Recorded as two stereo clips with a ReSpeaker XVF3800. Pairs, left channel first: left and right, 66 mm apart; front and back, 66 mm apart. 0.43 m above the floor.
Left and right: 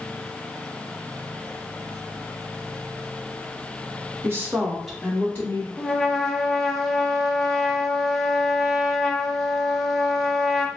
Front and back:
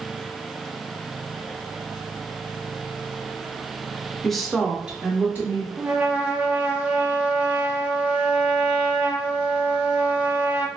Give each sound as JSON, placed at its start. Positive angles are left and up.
{"t": 4.2, "sound": "a woman speaking", "azimuth_deg": -85, "distance_m": 0.9}
{"t": 5.8, "sound": "a trumpet", "azimuth_deg": 180, "distance_m": 0.6}